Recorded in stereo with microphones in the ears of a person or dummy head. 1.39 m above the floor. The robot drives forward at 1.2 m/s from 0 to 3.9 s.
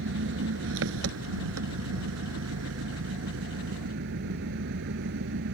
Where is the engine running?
70° right (ahead or behind); by 5.5 s 60° right (ahead or behind).